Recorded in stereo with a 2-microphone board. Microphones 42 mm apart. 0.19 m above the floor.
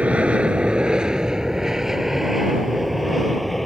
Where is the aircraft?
30° right (ahead or behind); by 3.7 s 5° left (ahead or behind).